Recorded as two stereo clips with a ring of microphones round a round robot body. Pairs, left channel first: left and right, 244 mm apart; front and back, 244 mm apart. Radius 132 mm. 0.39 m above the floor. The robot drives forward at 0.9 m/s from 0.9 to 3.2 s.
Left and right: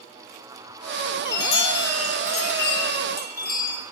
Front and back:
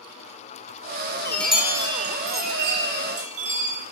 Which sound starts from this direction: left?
A chime, at 1.2 s.